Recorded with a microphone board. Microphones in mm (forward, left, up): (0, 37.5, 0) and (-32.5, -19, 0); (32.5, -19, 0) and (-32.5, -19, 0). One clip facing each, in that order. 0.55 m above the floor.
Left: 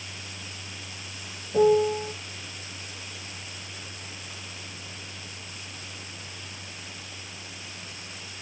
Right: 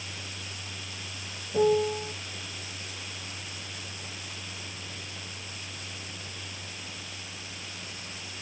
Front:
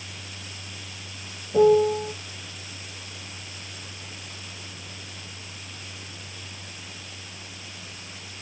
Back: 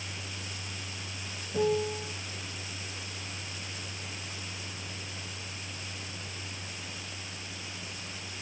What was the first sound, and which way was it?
A piano, 10° right.